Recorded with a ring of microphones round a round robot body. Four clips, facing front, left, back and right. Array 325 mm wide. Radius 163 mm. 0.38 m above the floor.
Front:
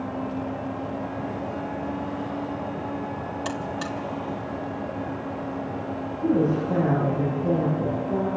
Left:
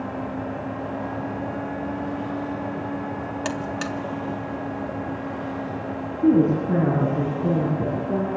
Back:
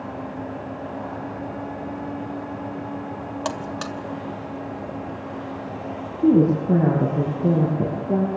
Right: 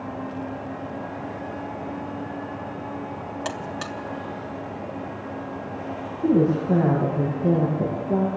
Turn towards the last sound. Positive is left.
turn(degrees=160)